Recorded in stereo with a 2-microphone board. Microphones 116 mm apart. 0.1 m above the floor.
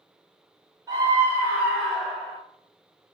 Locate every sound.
0.9 s a scream: 30° right (ahead or behind), 1.3 m; by 2.4 s centre (ahead or behind), 1.4 m